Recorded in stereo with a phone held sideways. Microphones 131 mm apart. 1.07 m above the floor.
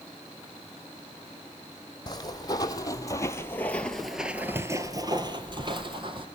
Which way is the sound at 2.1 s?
35° left (ahead or behind).